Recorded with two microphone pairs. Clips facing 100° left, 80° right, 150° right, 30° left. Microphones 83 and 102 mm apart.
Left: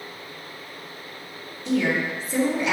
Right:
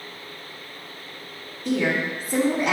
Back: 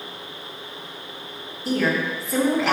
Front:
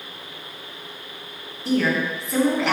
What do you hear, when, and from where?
1.6 s a woman speaking: 60° right, 3 m